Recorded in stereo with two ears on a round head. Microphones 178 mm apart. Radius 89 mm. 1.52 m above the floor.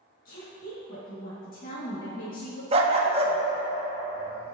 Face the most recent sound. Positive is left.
turn(degrees=-30)  # may be behind; listen again after turning